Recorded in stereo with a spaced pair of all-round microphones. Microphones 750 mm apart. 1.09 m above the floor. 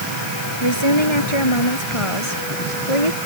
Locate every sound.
0.6 s a woman speaking: 35° left (ahead or behind); by 3.2 s 45° left (ahead or behind)